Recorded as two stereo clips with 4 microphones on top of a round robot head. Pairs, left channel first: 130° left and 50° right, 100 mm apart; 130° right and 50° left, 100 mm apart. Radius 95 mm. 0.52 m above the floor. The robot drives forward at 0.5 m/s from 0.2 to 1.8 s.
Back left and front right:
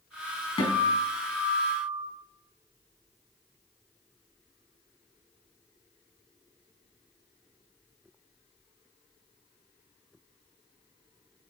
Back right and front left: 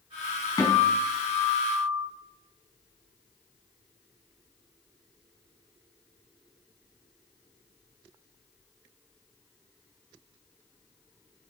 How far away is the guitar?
About 5 m.